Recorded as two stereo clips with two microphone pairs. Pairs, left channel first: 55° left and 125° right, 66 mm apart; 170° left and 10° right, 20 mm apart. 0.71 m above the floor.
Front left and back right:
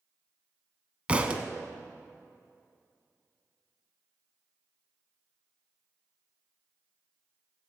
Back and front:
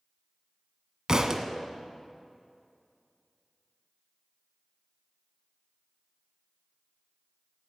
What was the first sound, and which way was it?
A thud, 55° right.